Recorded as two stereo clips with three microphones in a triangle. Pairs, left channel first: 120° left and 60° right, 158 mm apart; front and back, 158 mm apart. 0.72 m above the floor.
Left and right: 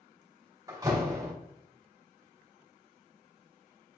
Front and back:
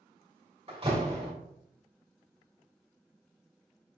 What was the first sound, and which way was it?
A door slam, 130° right.